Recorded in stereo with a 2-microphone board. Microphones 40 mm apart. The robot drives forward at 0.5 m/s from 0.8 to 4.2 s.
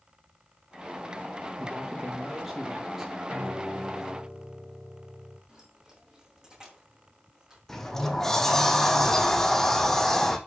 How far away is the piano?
About 5 m.